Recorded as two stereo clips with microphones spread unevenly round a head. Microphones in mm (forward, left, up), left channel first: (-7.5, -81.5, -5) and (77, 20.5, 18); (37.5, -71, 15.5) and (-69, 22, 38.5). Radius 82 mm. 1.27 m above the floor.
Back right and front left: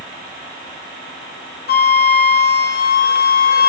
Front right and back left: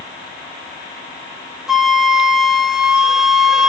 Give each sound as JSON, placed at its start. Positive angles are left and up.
{"t": 1.7, "sound": "a flute", "azimuth_deg": -135, "distance_m": 1.3}